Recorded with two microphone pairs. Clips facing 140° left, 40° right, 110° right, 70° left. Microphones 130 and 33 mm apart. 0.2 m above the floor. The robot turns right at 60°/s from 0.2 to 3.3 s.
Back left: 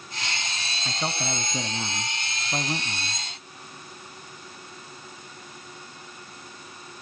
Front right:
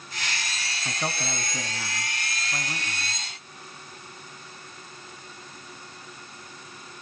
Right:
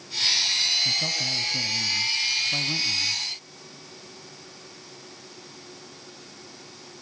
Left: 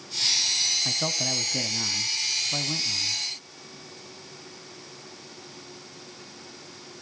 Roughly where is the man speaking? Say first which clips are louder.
Back left 1 dB, right 2 dB; ahead left.